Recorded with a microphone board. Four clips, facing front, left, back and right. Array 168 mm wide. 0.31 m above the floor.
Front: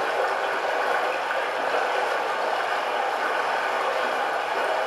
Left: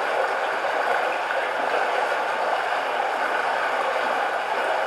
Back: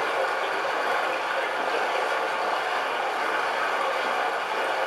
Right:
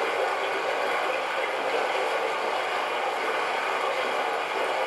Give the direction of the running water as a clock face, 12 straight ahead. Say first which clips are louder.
Left 3 dB, front 2 dB; 10 o'clock.